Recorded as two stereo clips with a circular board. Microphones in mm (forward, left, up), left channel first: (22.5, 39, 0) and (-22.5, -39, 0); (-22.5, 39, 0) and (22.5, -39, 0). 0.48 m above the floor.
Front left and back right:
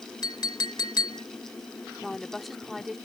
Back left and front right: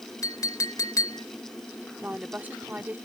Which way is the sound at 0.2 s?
80° left.